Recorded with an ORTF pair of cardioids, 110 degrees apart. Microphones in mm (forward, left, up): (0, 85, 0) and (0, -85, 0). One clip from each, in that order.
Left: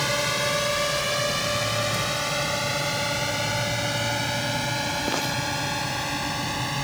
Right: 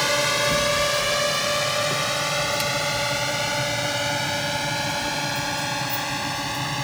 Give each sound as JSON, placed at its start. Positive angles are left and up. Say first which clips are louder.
{"t": 0.0, "sound": "a drone", "louder": "right 3 dB", "azimuth_deg": -25}